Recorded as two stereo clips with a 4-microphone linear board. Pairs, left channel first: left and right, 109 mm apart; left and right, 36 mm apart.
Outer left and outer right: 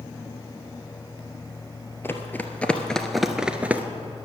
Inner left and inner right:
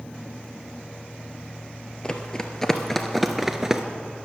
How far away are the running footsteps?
About 1.2 m.